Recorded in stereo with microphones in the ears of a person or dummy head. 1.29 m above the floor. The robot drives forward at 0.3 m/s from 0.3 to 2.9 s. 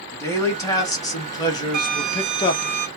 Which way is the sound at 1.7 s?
60° right (ahead or behind).